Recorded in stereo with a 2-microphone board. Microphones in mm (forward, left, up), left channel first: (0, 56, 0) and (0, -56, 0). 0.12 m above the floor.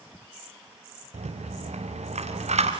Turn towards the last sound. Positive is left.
turn(degrees=-85)